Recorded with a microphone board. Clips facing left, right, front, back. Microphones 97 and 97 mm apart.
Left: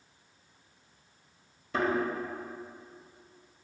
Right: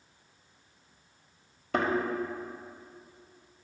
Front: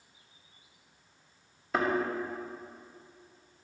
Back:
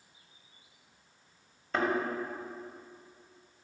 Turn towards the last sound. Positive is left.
turn(degrees=-85)